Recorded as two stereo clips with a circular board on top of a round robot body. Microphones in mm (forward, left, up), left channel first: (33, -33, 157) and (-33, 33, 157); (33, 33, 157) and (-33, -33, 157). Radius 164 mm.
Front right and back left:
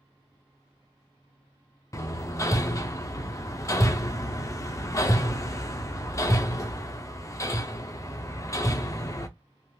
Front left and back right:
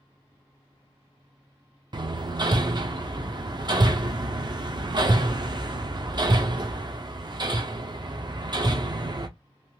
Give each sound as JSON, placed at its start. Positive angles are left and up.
{"t": 1.9, "sound": "hammering", "azimuth_deg": -100, "distance_m": 0.7}